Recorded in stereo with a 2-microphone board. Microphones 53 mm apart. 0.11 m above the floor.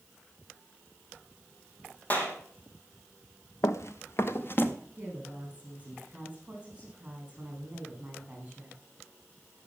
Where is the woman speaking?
25° right (ahead or behind), 7.5 m.